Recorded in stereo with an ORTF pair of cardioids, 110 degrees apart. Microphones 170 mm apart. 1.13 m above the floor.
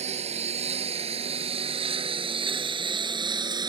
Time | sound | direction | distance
0.0 | a lawn mower | 40° right | ?